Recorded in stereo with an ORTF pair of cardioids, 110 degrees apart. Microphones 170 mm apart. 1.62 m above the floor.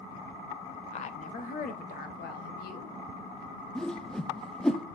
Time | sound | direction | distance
0.9 | a woman speaking | 40° left | 0.8 m
3.8 | a whoosh | 5° left | 0.6 m